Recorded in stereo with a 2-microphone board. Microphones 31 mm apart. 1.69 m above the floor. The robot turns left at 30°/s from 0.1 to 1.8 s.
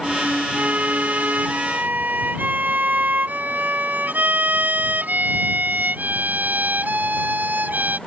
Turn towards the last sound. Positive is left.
turn(degrees=-95)